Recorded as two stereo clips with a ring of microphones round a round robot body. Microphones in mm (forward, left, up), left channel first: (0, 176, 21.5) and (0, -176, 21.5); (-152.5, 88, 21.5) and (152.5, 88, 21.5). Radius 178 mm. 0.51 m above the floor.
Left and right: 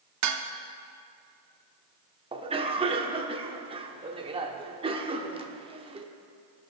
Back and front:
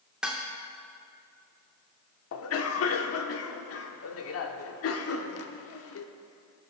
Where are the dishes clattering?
85° right, 0.8 m.